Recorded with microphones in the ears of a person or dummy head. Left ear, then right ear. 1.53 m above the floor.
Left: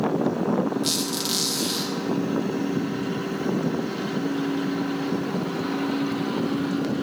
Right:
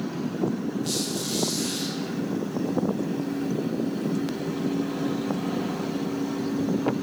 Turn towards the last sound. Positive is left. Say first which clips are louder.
# left 3 dB
turn(degrees=50)  # may be behind; listen again after turning